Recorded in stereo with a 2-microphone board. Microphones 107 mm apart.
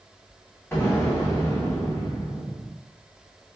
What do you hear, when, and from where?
0.7 s an explosion: 25° left (ahead or behind), 2 m